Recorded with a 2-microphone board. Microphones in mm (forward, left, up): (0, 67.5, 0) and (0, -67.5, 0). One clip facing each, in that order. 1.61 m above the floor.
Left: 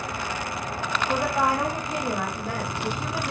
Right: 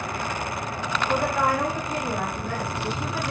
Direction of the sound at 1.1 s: 15° left (ahead or behind).